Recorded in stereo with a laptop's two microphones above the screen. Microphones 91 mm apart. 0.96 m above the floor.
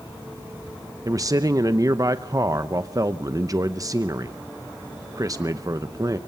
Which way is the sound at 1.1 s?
40° right (ahead or behind).